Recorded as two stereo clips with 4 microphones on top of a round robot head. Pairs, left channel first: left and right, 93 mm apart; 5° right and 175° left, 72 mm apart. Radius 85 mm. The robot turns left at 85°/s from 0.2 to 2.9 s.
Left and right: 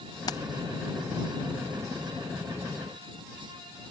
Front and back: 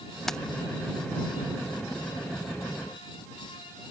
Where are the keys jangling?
80° left; by 0.4 s 70° left.